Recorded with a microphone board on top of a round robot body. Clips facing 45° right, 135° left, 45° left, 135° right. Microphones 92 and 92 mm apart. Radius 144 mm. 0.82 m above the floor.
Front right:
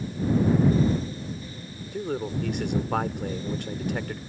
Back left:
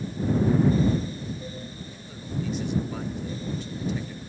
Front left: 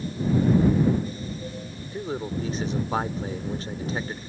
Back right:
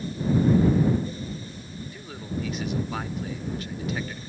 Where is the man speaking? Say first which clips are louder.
Front right 9 dB, front left 6 dB; 15° right.